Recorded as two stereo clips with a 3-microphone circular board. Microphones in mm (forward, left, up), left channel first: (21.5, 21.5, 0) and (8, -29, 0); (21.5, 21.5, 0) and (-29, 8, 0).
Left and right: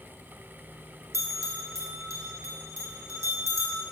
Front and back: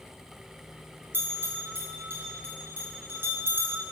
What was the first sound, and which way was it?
A bell, 125° right.